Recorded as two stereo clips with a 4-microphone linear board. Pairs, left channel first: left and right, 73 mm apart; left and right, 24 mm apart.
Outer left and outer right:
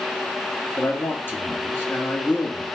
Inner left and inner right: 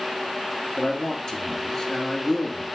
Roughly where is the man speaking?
Left.